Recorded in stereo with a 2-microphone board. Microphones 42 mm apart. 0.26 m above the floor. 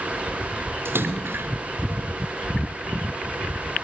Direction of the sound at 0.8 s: 75° right (ahead or behind).